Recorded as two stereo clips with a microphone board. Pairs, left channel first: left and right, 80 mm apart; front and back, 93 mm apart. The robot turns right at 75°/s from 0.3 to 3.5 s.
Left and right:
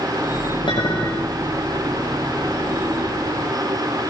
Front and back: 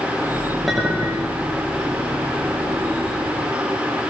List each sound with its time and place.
0.7 s a clink: 90° left, 8 m; by 1.3 s 140° left, 8 m